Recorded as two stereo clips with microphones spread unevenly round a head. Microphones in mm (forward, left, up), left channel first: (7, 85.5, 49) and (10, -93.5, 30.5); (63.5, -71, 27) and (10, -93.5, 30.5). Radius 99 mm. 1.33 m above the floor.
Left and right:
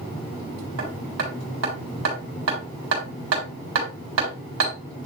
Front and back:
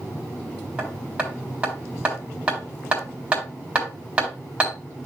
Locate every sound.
0.8 s hammering: 85° right, 4 m